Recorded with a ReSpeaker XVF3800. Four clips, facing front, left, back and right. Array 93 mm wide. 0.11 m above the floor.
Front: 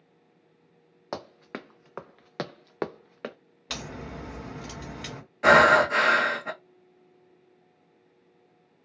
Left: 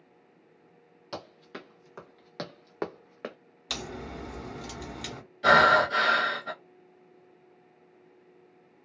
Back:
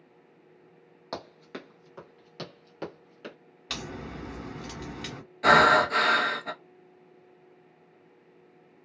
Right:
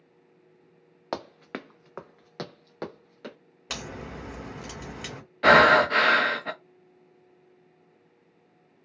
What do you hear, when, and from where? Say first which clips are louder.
1.1 s running footsteps: right 6 dB, front 2 dB; 75° right, 0.7 m; by 3.4 s 30° left, 0.9 m
3.7 s a crack: even, even; 80° right, 1.7 m
5.4 s breathing: right 3 dB, front 2 dB; 70° right, 0.5 m